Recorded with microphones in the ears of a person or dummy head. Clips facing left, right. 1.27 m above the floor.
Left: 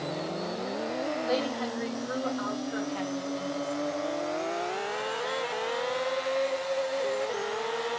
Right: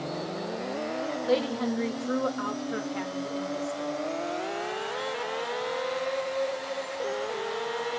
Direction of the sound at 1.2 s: 40° right (ahead or behind).